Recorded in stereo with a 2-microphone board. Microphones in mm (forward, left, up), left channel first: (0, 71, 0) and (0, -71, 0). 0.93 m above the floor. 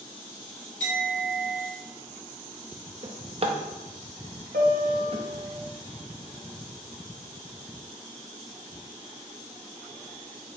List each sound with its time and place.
0.8 s a clink: 60° right (ahead or behind), 1.9 m
3.0 s a drawer: 45° right (ahead or behind), 0.5 m
4.5 s a piano: 75° right (ahead or behind), 0.6 m